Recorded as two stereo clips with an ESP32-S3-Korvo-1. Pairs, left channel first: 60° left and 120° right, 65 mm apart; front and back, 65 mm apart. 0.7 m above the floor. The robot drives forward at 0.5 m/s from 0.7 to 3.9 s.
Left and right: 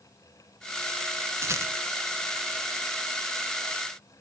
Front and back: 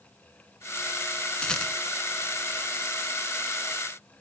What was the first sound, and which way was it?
A rattle, 75° right.